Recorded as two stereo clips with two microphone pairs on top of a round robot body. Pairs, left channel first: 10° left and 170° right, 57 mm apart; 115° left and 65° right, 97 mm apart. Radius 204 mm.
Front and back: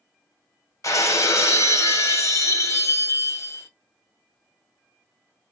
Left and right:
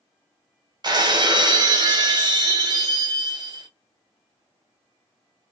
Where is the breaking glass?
20° right, 0.9 m.